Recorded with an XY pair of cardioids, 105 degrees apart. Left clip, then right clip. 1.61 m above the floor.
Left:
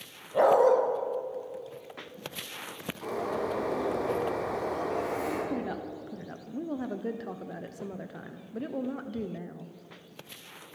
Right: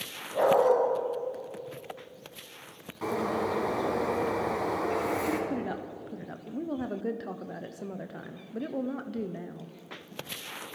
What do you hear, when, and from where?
0.3 s a dog barking: 30° left, 3.5 m
3.0 s a bird: 50° right, 4.5 m
5.5 s a woman speaking: 5° right, 0.8 m